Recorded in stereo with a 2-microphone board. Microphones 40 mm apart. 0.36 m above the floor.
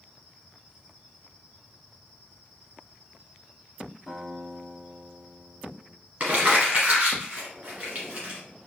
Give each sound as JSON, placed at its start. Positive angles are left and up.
{"t": 4.1, "sound": "a guitar", "side_deg": 0, "distance_m": 1.9}
{"t": 6.2, "sound": "crumpling", "side_deg": -35, "distance_m": 1.8}